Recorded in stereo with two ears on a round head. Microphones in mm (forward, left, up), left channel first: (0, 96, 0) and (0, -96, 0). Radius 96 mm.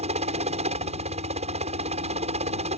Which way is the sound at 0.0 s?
30° right (ahead or behind).